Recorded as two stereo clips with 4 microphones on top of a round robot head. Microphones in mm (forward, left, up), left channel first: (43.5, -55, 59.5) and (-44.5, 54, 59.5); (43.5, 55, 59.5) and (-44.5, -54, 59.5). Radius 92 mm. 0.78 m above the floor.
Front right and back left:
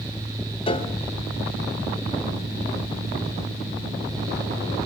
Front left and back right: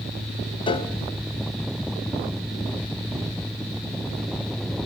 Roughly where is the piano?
Ahead.